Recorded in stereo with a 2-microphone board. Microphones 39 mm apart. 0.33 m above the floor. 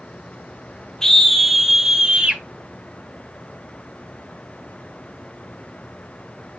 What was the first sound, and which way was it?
A scream, 10° left (ahead or behind).